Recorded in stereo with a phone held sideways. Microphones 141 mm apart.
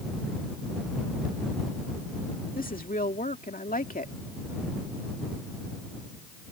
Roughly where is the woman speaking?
Left.